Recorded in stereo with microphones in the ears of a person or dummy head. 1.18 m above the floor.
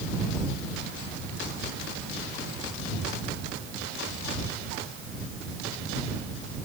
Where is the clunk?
No clunk in this recording.